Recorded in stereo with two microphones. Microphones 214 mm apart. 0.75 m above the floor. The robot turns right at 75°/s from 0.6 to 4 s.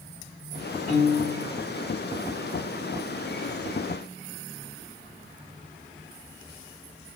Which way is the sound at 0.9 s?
80° left.